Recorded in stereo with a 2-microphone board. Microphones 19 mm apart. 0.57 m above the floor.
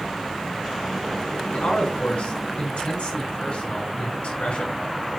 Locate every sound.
1.5 s a man speaking: 75° left (ahead or behind), 4.5 m